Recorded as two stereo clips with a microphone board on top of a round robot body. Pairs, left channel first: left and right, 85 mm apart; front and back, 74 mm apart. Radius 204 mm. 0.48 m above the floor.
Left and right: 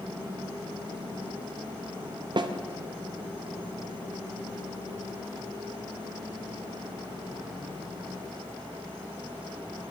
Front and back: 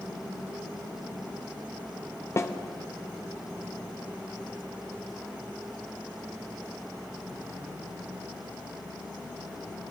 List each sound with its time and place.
2.4 s a snare drum: 55° right, 0.7 m